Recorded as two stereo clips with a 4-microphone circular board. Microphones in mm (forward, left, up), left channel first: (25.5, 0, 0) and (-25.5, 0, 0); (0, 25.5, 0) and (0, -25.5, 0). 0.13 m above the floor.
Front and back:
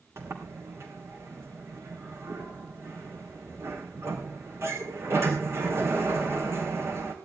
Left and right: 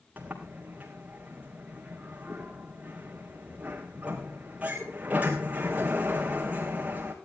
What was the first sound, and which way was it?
A sliding door, 150° right.